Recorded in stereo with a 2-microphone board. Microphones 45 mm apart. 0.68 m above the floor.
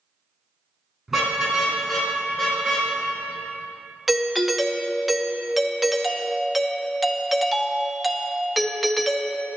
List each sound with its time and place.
1.1 s a car horn: 5° right (ahead or behind), 4 m
4.1 s a doorbell: 5° left (ahead or behind), 1.0 m